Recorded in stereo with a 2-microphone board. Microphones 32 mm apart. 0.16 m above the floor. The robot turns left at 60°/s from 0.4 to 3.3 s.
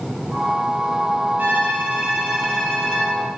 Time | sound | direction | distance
1.4 | a violin | 115° right | 9.5 m